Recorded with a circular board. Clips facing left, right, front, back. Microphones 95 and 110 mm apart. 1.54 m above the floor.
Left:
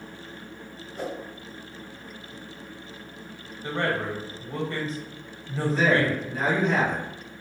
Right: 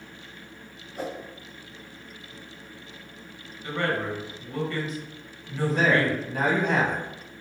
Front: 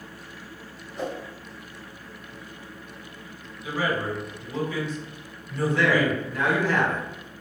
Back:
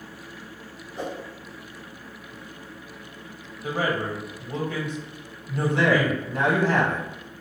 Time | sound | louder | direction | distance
0.9 | a whoosh | even, front 1 dB | 160° right | 1.2 m
3.6 | a man speaking | even, back 1 dB | 150° left | 1.0 m
5.7 | a man speaking | even, back 1 dB | 120° right | 1.1 m